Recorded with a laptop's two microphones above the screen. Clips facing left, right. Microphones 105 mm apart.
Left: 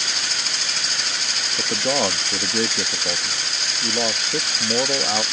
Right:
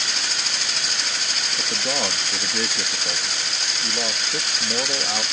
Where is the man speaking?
25° left (ahead or behind).